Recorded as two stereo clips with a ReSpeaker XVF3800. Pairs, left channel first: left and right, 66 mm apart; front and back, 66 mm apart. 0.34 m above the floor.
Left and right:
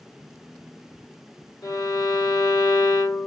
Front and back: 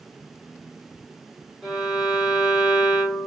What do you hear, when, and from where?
1.6 s a violin: 100° left, 2 m